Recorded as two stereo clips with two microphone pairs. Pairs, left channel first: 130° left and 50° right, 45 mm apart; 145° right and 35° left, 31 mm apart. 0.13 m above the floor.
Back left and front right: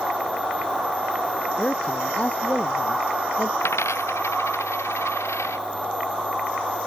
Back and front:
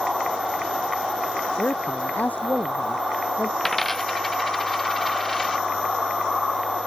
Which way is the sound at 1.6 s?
165° right.